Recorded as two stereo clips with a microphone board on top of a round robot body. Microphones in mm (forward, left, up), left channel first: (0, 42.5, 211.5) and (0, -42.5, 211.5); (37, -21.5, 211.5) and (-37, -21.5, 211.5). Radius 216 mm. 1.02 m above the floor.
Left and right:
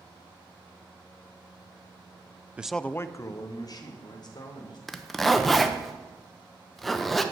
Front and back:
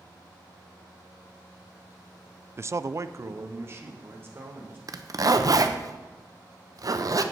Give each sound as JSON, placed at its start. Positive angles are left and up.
{"t": 2.6, "sound": "a man speaking", "azimuth_deg": -150, "distance_m": 0.5}
{"t": 4.9, "sound": "a zipper", "azimuth_deg": 180, "distance_m": 0.9}